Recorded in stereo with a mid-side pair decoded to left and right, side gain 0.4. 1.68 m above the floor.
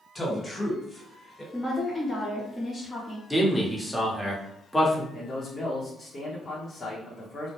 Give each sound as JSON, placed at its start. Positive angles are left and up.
{"t": 0.1, "sound": "a man speaking", "azimuth_deg": 20, "distance_m": 1.4}
{"t": 1.5, "sound": "a woman speaking", "azimuth_deg": 15, "distance_m": 1.0}
{"t": 3.3, "sound": "a man speaking", "azimuth_deg": 0, "distance_m": 1.1}
{"t": 5.1, "sound": "a man speaking", "azimuth_deg": 40, "distance_m": 0.9}